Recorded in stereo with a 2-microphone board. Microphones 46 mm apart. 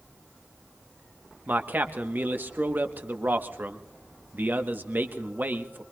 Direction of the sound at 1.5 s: 40° right (ahead or behind).